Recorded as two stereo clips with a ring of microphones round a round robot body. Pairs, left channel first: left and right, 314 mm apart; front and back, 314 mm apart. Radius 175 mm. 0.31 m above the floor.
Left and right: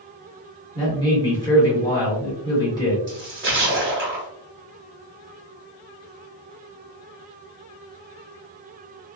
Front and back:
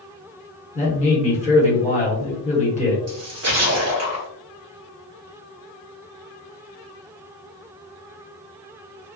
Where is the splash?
145° right, 1.5 m.